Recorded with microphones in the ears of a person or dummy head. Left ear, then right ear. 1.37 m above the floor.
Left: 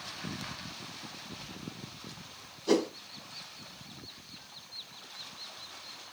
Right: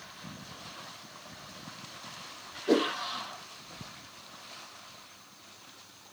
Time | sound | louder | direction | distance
2.7 | a whoosh | right 2 dB | 85° left | 1.2 m